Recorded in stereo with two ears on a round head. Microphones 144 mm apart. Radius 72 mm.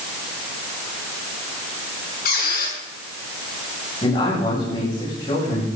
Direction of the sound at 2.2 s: 60° left (ahead or behind).